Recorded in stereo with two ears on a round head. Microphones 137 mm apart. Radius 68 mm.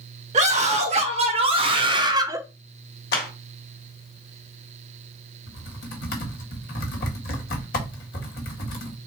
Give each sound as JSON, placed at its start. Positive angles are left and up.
{"t": 0.3, "sound": "a scream", "side_deg": -45, "distance_m": 1.9}
{"t": 3.1, "sound": "a clap", "side_deg": 80, "distance_m": 1.9}
{"t": 5.5, "sound": "typing on a keyboard", "side_deg": 70, "distance_m": 1.8}